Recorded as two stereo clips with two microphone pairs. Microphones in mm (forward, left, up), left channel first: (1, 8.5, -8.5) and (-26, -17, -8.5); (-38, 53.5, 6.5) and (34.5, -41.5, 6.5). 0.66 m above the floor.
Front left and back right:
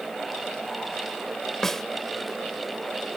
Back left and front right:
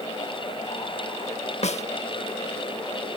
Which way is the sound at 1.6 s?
120° left.